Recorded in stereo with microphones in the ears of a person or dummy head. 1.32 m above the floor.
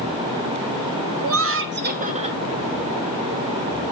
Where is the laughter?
60° right (ahead or behind), 0.7 m; by 2.4 s 25° right (ahead or behind), 1.1 m.